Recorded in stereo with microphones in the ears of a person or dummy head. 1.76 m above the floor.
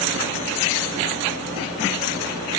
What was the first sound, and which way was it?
Only background noise.